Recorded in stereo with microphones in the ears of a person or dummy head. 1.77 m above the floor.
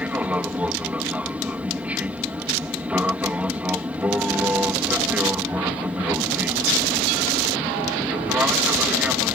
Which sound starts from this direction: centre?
An aircraft, at 0.0 s.